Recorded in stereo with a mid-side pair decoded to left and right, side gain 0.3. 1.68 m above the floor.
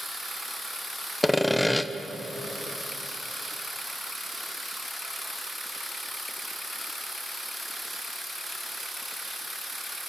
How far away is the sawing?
About 1.1 m.